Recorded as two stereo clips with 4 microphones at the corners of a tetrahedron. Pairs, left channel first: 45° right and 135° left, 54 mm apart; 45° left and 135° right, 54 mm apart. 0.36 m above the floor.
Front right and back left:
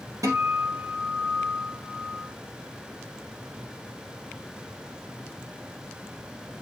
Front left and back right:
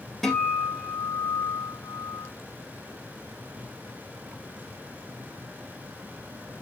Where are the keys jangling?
No keys jangling in this recording.